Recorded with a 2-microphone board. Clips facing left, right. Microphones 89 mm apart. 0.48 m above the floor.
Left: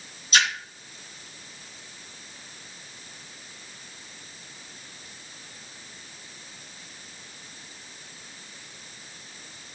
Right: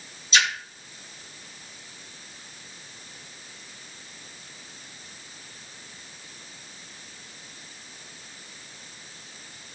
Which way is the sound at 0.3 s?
50° left (ahead or behind).